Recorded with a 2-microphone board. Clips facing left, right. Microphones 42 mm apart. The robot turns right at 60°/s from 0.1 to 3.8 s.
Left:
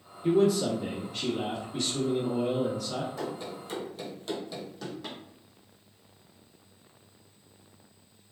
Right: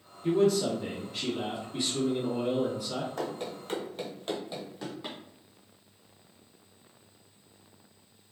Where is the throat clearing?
I don't hear throat clearing.